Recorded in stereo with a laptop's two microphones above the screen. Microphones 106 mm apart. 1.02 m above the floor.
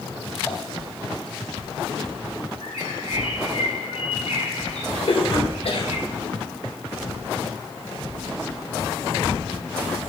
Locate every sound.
0.5 s tapping: 25° left (ahead or behind), 2 m
2.6 s a bird: 85° left, 3 m
5.1 s a cough: 70° left (ahead or behind), 4 m